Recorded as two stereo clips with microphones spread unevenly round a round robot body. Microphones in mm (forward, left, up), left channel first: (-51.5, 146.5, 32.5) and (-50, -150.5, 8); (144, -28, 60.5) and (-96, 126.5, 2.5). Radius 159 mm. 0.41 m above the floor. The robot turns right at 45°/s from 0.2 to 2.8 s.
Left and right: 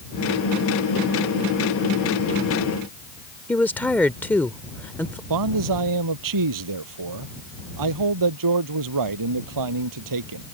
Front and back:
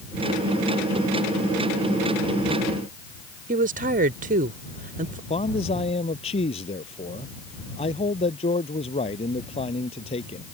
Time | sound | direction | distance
3.5 | a woman speaking | 175° left | ?
5.3 | a man speaking | 105° right | ?